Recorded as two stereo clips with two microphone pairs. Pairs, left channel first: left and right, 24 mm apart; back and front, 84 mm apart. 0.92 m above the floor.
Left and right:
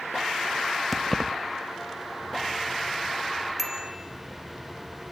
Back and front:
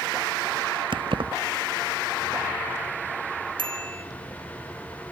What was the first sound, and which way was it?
Keys jangling, 10° left.